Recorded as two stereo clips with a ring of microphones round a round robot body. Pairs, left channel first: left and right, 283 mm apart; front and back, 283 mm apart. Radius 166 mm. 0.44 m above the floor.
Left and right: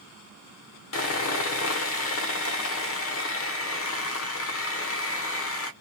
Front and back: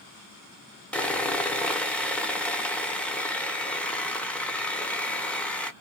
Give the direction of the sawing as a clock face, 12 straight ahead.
9 o'clock.